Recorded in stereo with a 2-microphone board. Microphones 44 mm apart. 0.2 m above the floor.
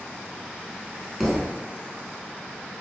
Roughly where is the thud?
Centre.